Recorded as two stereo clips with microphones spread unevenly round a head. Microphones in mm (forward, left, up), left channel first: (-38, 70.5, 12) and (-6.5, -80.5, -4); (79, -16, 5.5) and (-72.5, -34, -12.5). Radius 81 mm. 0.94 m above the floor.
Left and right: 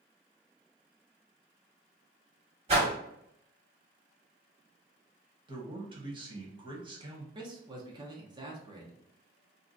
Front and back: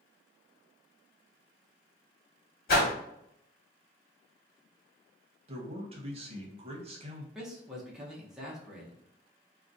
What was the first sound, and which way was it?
A whoosh, 20° right.